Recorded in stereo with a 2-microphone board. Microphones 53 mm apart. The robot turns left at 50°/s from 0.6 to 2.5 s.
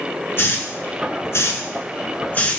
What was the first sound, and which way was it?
A hiss, 45° left (ahead or behind).